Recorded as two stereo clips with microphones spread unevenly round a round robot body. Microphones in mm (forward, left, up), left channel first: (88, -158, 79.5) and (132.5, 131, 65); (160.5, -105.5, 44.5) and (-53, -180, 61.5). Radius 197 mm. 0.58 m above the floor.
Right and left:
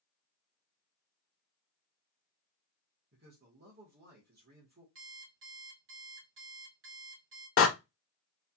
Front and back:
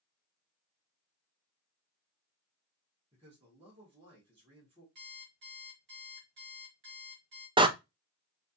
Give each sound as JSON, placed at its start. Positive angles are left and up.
{"t": 3.1, "sound": "a man speaking", "azimuth_deg": 130, "distance_m": 1.2}
{"t": 5.0, "sound": "an alarm clock", "azimuth_deg": 140, "distance_m": 1.0}
{"t": 7.6, "sound": "a door slam", "azimuth_deg": -95, "distance_m": 0.6}